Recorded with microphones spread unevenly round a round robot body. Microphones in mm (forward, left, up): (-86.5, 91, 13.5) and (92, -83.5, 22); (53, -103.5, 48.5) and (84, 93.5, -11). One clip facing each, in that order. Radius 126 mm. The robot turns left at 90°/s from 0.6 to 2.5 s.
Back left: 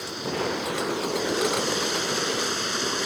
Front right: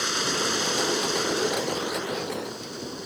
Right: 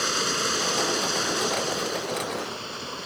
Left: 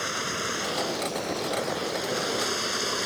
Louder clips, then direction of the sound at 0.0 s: Back left 1 dB, right 4 dB; 60° right.